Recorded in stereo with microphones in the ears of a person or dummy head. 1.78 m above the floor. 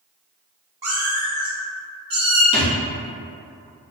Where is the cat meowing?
20° right (ahead or behind), 1.0 m; by 2.4 s 25° right (ahead or behind), 1.5 m.